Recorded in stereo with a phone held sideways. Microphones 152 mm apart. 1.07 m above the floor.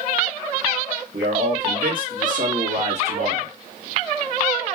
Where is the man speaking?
80° right, 2.5 m; by 3.5 s 40° right (ahead or behind), 2 m.